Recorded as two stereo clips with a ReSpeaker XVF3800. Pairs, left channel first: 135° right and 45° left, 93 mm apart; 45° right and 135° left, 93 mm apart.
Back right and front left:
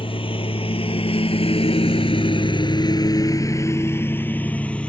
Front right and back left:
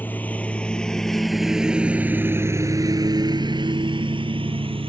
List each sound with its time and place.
0.0 s a lawn mower: 115° right; by 4.9 s 145° left